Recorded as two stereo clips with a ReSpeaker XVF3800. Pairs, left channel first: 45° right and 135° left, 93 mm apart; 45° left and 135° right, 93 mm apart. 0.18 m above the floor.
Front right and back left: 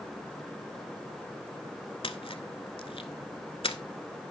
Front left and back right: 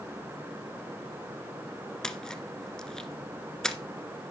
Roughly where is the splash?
Ahead right.